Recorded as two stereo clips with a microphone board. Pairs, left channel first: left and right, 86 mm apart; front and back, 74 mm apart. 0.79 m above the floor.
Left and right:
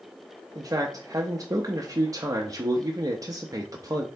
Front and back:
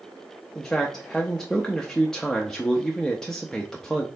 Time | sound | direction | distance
0.6 | a man speaking | 80° right | 0.6 m